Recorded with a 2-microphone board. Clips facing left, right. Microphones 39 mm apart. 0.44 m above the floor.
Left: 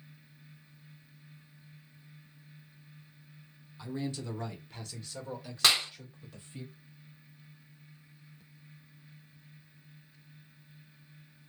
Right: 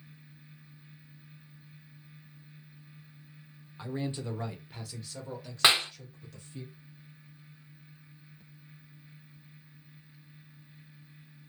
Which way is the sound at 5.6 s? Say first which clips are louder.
Right 3 dB; 25° right (ahead or behind).